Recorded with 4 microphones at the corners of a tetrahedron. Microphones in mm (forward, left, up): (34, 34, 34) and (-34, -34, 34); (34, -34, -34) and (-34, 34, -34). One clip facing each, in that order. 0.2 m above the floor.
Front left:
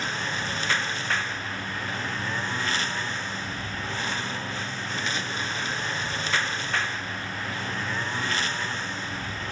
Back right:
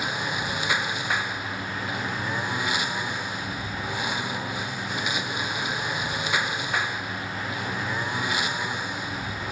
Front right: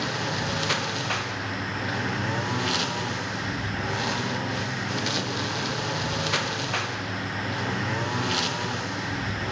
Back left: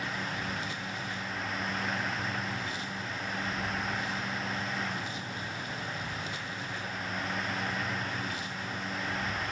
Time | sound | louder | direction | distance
0.0 | a lawn mower | back right 2 dB, front right 7 dB | 55° right | ?